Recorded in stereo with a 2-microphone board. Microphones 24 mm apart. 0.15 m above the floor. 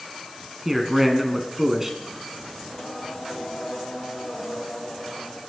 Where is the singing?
40° left (ahead or behind), 5.5 m.